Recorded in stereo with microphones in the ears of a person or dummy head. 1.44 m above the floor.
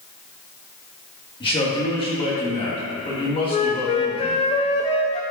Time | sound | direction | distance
1.4 | a man speaking | 25° left (ahead or behind) | 2 m
3.5 | a flute | 30° left (ahead or behind) | 0.6 m